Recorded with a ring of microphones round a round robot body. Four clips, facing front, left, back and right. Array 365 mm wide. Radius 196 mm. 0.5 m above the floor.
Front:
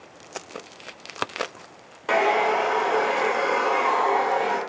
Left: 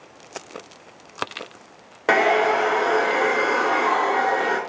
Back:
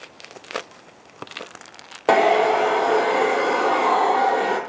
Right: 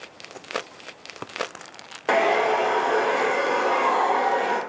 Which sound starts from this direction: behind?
A hair dryer, at 2.1 s.